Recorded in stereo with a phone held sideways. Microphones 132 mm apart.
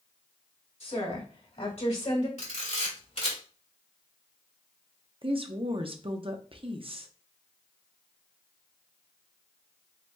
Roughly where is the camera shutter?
Left.